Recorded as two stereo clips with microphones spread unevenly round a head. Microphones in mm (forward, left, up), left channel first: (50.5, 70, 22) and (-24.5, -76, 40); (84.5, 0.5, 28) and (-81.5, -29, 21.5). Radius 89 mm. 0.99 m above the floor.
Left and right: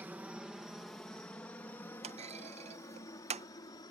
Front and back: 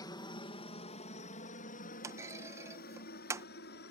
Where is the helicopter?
35° right; by 3.9 s straight ahead.